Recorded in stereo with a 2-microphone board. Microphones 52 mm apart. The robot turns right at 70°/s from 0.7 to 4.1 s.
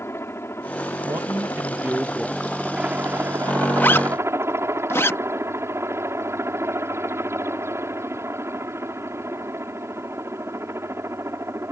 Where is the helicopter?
60° left; by 11.7 s 65° right.